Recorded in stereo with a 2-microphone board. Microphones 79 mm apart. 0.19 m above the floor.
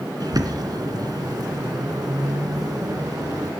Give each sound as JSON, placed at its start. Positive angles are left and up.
{"t": 0.2, "sound": "a bird", "side_deg": -55, "distance_m": 2.0}